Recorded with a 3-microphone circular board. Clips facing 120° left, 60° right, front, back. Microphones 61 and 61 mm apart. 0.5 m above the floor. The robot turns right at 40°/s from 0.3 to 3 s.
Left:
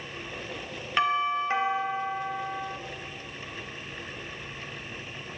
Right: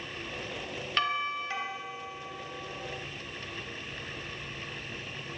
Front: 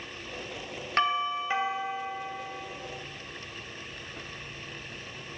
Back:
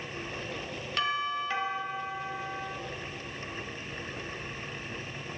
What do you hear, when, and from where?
1.0 s a doorbell: 50° left, 3 m; by 2.8 s 120° left, 3 m